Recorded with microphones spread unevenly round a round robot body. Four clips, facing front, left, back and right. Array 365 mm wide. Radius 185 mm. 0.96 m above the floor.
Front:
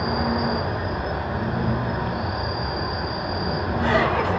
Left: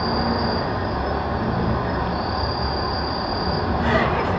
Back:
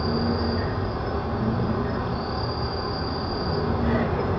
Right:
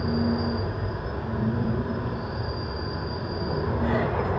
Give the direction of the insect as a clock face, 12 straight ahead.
10 o'clock.